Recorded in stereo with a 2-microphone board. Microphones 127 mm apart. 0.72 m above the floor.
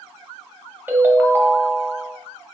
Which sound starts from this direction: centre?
A ringtone, at 0.9 s.